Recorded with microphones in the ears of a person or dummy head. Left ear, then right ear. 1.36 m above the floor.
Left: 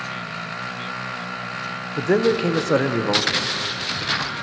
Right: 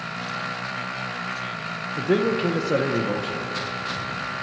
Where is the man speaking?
30° left (ahead or behind), 0.5 m.